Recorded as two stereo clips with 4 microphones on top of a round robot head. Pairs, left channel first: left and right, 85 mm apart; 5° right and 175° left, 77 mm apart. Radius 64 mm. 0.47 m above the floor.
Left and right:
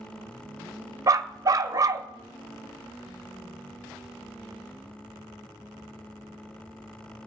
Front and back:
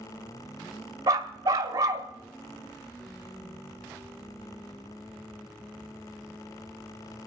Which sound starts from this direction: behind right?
A dog barking, at 1.1 s.